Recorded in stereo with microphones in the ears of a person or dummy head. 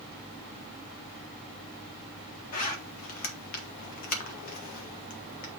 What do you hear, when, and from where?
2.5 s a zipper: 50° left (ahead or behind), 1.4 m